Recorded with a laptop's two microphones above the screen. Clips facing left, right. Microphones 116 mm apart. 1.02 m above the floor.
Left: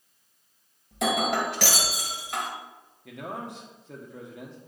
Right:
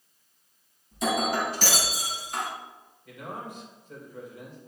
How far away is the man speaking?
About 1.6 m.